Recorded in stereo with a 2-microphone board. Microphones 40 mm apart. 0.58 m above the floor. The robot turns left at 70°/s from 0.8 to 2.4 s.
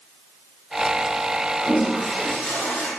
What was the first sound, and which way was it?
A toilet flushing, 150° right.